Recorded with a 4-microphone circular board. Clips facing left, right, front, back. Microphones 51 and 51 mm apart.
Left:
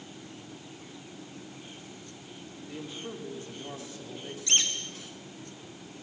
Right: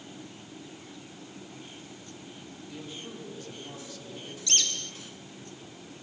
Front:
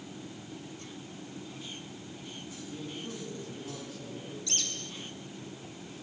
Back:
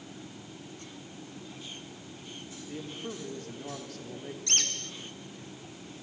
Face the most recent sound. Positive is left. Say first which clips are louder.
# left 1 dB, back 5 dB
turn(degrees=155)